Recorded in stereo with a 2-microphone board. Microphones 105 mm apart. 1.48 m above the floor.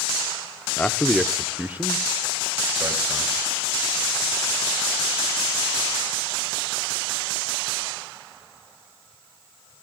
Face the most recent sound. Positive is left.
turn(degrees=-35)  # may be behind; listen again after turning